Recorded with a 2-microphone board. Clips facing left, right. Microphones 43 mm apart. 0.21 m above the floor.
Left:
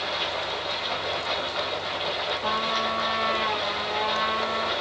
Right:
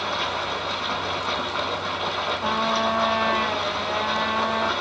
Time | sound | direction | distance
0.0 | running water | 55° right (ahead or behind) | 2.5 m
2.4 | a trumpet | 25° right (ahead or behind) | 2.5 m